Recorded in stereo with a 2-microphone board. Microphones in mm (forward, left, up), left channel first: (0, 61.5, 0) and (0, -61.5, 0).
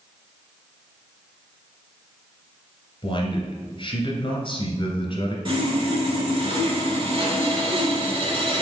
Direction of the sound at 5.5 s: 45° right (ahead or behind).